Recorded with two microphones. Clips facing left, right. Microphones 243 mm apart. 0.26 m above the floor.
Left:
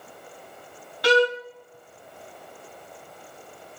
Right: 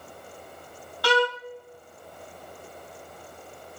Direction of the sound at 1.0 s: 20° left (ahead or behind).